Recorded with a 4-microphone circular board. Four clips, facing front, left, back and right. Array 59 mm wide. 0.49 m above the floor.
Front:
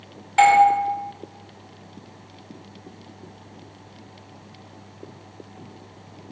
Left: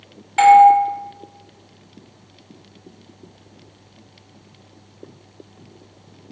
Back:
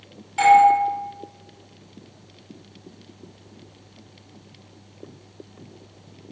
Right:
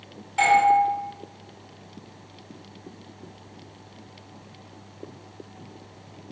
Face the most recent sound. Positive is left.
turn(degrees=45)